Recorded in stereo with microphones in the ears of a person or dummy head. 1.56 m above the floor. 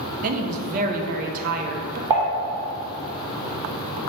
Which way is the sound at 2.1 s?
20° right (ahead or behind).